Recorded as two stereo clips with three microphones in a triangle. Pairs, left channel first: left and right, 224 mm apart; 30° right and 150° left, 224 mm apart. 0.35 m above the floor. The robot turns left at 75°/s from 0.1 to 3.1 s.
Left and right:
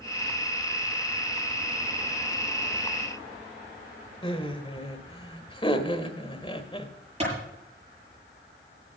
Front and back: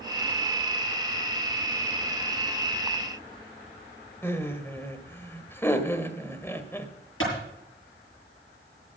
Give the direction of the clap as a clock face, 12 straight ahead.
1 o'clock.